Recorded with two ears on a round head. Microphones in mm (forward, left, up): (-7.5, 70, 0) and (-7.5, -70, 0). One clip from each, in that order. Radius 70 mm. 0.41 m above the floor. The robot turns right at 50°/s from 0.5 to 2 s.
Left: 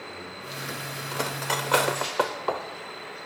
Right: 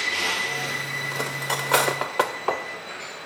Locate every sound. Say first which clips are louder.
1.1 s cutlery clinking: left 2 dB; 10° left (ahead or behind), 0.5 m; by 2.6 s 25° right (ahead or behind), 0.5 m